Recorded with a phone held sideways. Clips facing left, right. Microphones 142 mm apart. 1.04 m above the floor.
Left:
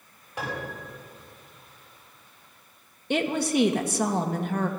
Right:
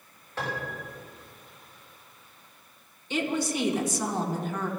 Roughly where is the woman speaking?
Left.